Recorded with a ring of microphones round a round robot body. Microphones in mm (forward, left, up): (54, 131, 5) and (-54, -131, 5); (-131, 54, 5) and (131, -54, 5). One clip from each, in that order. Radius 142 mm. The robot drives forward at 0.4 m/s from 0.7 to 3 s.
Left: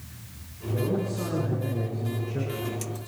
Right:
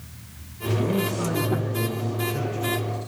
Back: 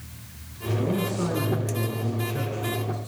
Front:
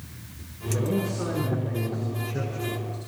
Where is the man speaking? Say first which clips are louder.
Right 3 dB, back 1 dB; 120° right, 7.5 m; by 3.0 s 125° right, 8 m.